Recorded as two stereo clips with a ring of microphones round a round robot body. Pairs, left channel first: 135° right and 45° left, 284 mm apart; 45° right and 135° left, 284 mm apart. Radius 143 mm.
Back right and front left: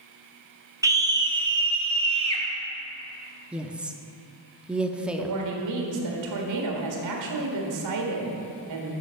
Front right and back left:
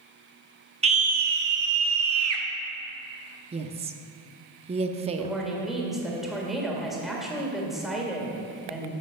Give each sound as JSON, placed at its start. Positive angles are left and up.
{"t": 0.8, "sound": "a scream", "azimuth_deg": 105, "distance_m": 1.0}
{"t": 3.5, "sound": "a woman speaking", "azimuth_deg": 125, "distance_m": 0.6}
{"t": 5.2, "sound": "a woman speaking", "azimuth_deg": 45, "distance_m": 1.8}